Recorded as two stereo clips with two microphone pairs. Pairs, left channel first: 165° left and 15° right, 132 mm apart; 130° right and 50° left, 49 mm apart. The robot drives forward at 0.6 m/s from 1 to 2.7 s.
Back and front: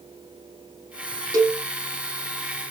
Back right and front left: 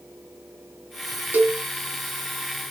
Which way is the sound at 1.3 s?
35° left.